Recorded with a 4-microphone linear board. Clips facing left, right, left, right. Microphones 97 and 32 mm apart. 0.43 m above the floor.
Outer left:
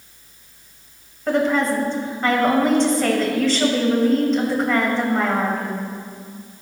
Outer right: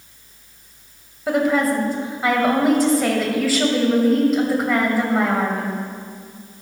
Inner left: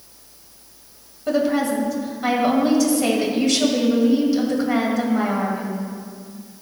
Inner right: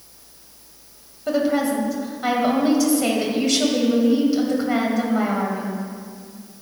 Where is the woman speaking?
5° right (ahead or behind), 1.8 m.